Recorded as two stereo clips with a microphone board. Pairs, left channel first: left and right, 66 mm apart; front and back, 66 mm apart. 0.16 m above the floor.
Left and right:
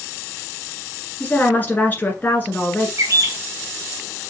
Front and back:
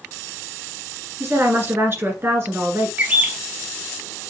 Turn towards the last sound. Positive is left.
turn(degrees=-120)